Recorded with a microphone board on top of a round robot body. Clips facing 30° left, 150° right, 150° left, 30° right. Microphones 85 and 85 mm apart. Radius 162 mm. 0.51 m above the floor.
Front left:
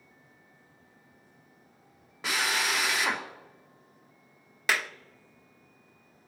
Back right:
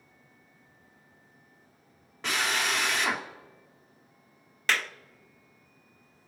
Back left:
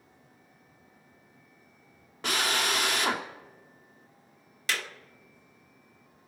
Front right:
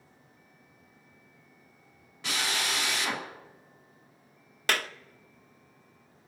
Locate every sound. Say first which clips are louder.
2.2 s a drill: even, back left 4 dB; 115° left, 2.5 m
4.7 s a clap: even, front right 4 dB; 50° right, 1.1 m